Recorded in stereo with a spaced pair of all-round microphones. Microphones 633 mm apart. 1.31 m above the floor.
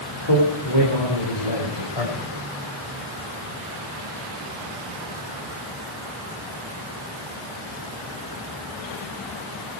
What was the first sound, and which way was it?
A man speaking, 50° left (ahead or behind).